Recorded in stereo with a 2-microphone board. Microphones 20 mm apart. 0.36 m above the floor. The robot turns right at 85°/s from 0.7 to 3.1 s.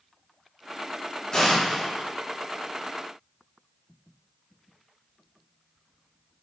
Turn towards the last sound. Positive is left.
turn(degrees=-60)